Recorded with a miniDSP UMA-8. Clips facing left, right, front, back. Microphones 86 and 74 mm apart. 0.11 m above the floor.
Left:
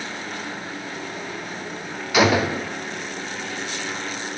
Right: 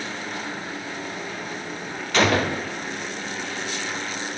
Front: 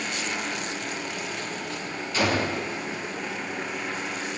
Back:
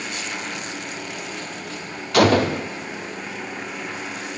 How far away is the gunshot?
About 0.9 m.